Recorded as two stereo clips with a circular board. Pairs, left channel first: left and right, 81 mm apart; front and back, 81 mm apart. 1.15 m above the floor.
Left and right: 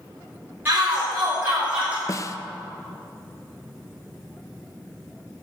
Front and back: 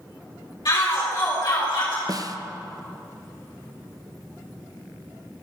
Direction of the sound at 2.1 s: 140° left.